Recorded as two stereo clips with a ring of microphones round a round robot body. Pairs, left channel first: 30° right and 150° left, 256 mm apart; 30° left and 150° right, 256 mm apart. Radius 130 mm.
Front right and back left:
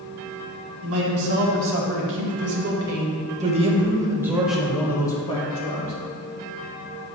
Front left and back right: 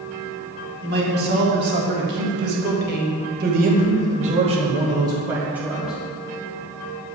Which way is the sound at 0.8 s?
165° left.